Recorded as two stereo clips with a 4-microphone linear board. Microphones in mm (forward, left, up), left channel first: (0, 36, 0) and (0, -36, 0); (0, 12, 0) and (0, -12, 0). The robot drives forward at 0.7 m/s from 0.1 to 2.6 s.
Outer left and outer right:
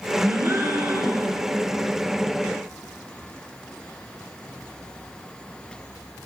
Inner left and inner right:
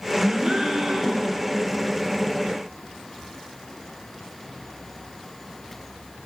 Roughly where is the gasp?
Right.